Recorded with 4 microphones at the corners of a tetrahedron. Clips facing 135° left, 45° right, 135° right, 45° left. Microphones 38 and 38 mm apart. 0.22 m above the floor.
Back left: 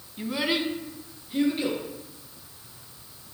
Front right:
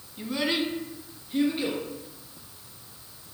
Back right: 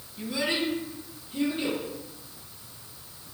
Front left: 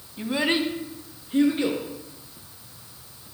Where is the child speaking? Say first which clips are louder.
Back left 1 dB, front left 4 dB; 70° left, 0.6 m; by 1.8 s 45° left, 2 m.